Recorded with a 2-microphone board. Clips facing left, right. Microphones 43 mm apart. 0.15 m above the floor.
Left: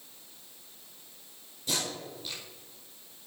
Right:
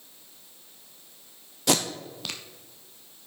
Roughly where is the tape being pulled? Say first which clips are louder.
Right 8 dB; right.